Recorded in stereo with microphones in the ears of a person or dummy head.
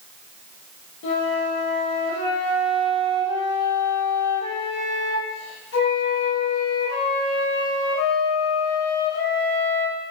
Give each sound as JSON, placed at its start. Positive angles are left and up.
{"t": 1.0, "sound": "a flute", "side_deg": 75, "distance_m": 1.0}